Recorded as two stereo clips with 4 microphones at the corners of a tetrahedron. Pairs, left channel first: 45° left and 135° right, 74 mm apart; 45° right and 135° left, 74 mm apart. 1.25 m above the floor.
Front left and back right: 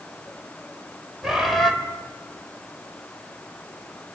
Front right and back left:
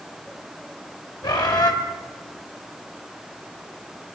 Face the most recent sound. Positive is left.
turn(degrees=-50)